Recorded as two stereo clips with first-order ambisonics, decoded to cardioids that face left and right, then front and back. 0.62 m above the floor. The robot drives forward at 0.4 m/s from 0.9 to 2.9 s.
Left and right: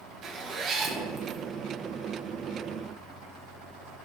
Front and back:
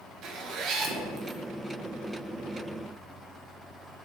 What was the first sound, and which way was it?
A zipper, 145° right.